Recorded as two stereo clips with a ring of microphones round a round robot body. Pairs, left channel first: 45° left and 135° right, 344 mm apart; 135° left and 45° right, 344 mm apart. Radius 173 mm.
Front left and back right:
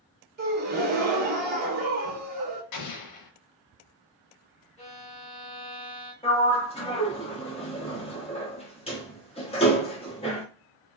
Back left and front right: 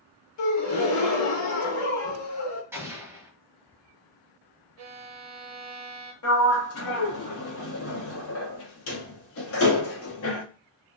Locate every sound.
0.4 s a gasp: 165° left, 0.8 m
2.7 s an explosion: 35° left, 0.5 m
4.8 s a violin: 25° right, 0.9 m
6.2 s a sliding door: 110° left, 0.8 m